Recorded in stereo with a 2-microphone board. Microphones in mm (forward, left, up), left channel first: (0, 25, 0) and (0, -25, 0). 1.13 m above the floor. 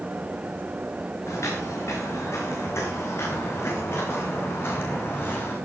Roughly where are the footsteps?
Left.